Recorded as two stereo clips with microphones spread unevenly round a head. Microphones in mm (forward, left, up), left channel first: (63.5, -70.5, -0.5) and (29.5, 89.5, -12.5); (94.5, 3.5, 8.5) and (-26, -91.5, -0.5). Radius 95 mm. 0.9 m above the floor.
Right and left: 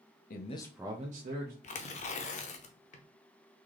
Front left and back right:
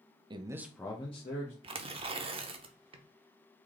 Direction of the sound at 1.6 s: 100° right.